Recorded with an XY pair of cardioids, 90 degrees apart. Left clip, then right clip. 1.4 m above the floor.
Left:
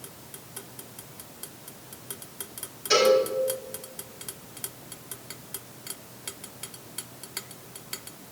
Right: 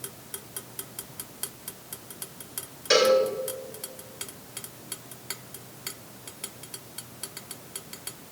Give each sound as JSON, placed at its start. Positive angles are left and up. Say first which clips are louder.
{"t": 2.9, "sound": "a cowbell", "louder": "even", "azimuth_deg": -65, "distance_m": 5.0}